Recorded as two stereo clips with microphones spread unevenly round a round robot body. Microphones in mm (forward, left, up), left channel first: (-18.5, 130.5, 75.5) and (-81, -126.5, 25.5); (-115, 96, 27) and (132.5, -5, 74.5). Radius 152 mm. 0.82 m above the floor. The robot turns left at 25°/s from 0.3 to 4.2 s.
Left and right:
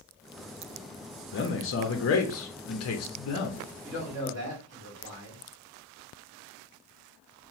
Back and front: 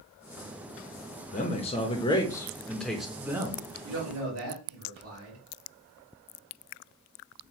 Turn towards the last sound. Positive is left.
turn(degrees=-65)